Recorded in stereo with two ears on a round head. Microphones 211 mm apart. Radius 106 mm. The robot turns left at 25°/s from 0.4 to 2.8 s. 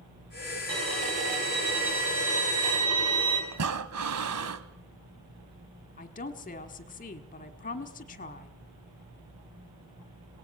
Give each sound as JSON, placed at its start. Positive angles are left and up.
{"t": 0.7, "sound": "a violin", "azimuth_deg": -25, "distance_m": 5.0}
{"t": 3.5, "sound": "breathing", "side_deg": -70, "distance_m": 1.1}
{"t": 6.0, "sound": "a woman speaking", "side_deg": 35, "distance_m": 1.4}